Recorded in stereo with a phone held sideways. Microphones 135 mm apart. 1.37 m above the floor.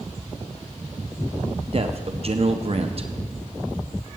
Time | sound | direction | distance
1.7 | a man speaking | 50° right (ahead or behind) | 1.0 m